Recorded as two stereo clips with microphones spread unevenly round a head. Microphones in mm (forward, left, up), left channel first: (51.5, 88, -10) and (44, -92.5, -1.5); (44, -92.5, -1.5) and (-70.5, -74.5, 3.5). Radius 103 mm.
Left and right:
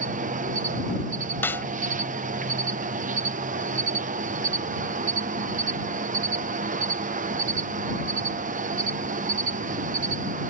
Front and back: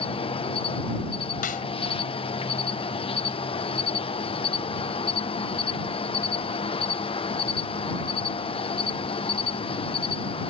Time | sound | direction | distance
0.0 | an insect | 45° right | ?
1.4 | a snare drum | 10° left | ?